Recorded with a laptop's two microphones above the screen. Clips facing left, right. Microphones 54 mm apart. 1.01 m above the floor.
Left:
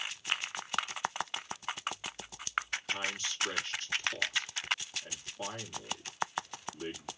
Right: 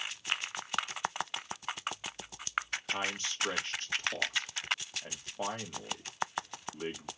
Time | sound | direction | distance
2.9 | a man speaking | 45° right (ahead or behind) | 2 m